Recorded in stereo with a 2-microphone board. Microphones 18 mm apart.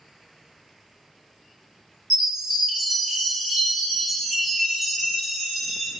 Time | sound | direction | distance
2.1 | a chime | 5° right (ahead or behind) | 1.3 m